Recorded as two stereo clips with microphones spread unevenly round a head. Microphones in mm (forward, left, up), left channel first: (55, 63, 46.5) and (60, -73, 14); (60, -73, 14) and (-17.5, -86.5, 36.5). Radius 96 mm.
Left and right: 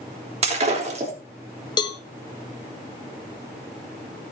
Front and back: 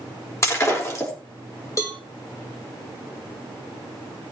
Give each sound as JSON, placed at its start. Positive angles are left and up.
{"t": 0.4, "sound": "breaking glass", "azimuth_deg": -45, "distance_m": 3.0}
{"t": 1.8, "sound": "a cowbell", "azimuth_deg": 85, "distance_m": 0.8}